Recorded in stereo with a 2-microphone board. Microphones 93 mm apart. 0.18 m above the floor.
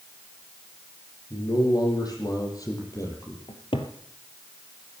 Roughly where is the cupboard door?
Left.